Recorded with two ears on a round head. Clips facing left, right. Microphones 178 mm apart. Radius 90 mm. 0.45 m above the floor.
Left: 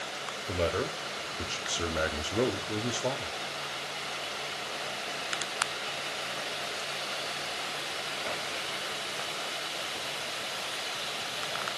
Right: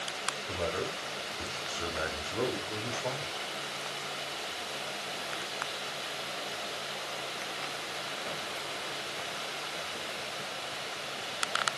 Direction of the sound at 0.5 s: 40° left (ahead or behind).